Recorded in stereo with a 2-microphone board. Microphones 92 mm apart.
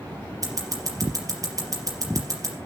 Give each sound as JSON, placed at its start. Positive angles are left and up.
{"t": 0.4, "sound": "scissors", "side_deg": -40, "distance_m": 4.0}